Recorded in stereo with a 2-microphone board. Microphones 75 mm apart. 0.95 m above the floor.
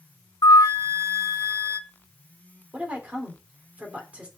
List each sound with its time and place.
0.4 s a flute: 60° left (ahead or behind), 1.5 m
2.7 s a woman speaking: 20° right (ahead or behind), 3 m